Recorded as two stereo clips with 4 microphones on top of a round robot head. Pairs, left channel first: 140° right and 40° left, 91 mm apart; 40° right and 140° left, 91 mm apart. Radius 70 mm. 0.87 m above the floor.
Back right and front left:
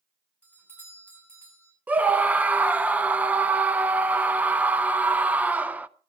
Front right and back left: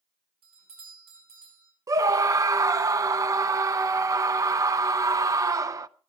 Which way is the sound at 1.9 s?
105° left.